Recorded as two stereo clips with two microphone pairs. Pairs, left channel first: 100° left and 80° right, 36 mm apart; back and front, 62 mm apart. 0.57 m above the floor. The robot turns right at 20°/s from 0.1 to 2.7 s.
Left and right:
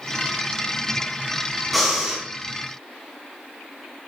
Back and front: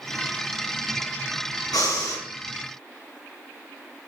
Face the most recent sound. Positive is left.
turn(degrees=-150)